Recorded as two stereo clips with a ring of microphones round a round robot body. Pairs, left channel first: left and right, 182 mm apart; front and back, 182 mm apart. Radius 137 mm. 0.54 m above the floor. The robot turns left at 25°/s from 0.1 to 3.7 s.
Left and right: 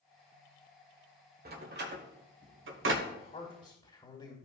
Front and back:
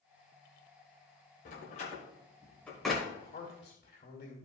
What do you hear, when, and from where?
1.4 s a door slam: 55° right, 1.5 m; by 3.0 s 90° right, 1.5 m
3.0 s a man speaking: 50° left, 2.5 m; by 4.4 s 35° left, 2.5 m